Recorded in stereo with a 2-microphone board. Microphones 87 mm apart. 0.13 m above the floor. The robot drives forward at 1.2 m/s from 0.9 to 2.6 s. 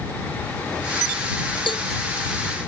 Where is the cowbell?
70° left (ahead or behind).